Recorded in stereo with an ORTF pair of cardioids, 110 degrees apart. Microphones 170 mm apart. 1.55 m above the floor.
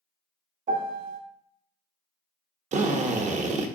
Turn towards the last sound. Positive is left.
turn(degrees=-50)